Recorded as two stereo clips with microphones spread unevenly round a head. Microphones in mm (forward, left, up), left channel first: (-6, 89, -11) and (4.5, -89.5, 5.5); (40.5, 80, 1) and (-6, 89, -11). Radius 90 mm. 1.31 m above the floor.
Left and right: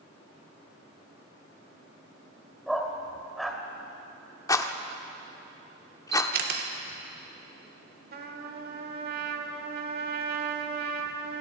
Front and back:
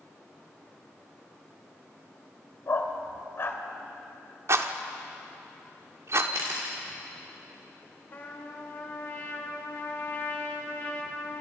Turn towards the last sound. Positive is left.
turn(degrees=-55)